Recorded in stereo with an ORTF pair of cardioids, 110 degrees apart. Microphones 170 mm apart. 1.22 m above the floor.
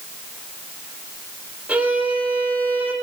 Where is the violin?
5° right, 3 m.